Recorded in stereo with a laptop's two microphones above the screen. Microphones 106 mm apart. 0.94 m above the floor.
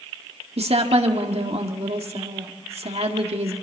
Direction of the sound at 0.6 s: 75° right (ahead or behind).